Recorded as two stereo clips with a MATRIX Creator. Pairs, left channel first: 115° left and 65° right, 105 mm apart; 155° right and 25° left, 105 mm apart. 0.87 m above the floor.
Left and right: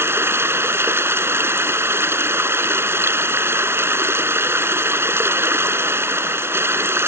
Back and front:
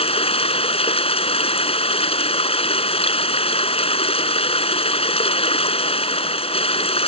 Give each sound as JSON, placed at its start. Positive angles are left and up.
{"t": 0.0, "sound": "running water", "azimuth_deg": -135}